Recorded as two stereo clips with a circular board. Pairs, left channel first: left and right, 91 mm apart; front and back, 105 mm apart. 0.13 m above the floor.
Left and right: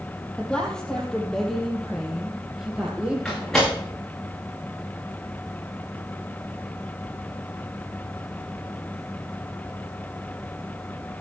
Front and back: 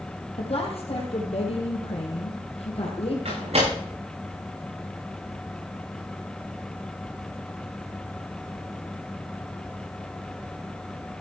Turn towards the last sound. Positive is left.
turn(degrees=175)